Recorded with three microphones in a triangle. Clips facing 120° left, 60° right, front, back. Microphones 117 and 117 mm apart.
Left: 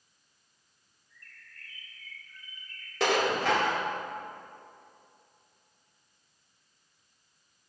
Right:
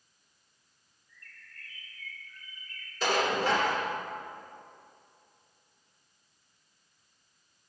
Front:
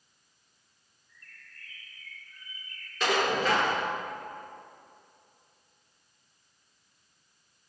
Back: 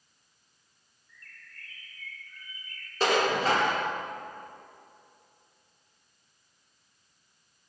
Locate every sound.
1.1 s a bird: 65° left, 4.5 m
3.0 s dishes clattering: 125° left, 2 m